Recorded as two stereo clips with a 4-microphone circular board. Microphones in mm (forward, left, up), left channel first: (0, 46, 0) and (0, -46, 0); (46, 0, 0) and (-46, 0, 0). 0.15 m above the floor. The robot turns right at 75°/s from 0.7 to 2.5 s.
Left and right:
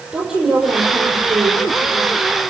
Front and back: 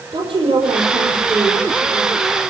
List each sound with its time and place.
0.1 s a woman speaking: 175° right, 6 m; by 2.2 s 60° right, 6 m